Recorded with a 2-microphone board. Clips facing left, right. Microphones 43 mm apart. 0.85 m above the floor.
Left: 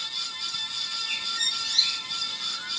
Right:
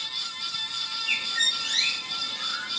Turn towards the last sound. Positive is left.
turn(degrees=-45)  # may be behind; listen again after turning